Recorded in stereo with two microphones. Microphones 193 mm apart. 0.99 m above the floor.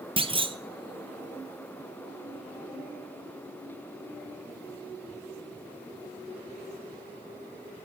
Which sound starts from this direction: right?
A clunk, at 0.2 s.